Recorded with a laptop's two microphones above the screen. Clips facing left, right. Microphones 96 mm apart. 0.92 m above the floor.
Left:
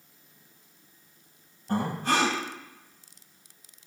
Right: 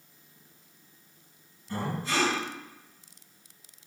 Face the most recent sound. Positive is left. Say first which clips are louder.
# left 5 dB
turn(degrees=75)  # may be behind; listen again after turning